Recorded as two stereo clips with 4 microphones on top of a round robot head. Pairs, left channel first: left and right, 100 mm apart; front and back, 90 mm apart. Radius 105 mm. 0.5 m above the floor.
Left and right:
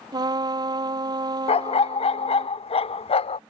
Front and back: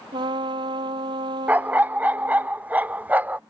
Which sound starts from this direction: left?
A dog barking, at 1.5 s.